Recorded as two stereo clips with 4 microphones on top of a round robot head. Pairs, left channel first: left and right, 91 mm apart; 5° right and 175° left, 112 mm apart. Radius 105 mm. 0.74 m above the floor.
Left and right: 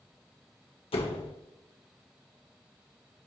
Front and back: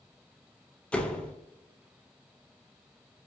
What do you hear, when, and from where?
0.9 s a door slam: 75° left, 2 m